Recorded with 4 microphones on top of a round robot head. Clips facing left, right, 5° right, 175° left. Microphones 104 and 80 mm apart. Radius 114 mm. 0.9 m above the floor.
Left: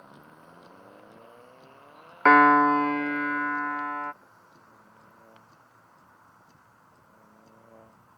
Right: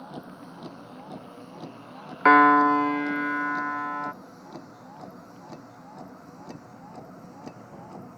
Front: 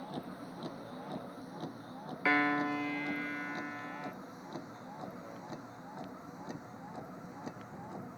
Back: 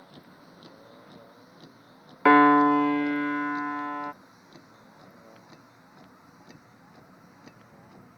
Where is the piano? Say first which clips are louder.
Right 1 dB, back 14 dB; 175° right.